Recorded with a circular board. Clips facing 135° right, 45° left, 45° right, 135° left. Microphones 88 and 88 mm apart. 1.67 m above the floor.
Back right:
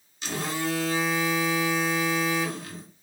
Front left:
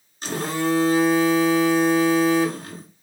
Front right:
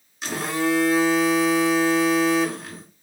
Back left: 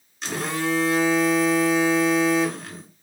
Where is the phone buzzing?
35° left, 0.6 m.